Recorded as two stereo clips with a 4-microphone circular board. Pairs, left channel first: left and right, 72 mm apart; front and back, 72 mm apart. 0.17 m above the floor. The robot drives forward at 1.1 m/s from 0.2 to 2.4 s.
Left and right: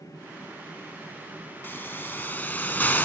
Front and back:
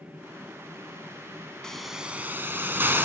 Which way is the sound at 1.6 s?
70° left.